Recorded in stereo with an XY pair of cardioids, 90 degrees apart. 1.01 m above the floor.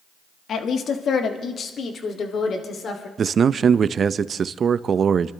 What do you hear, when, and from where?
0.5 s a woman speaking: 65° left, 1.5 m; by 3.1 s 55° left, 3 m
3.2 s a man speaking: 50° right, 0.6 m